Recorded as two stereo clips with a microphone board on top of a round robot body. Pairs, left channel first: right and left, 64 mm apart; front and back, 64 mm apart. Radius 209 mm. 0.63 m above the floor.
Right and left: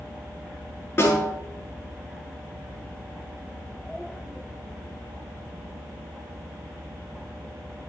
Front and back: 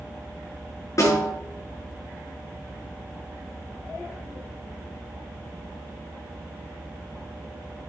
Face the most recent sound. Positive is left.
turn(degrees=-40)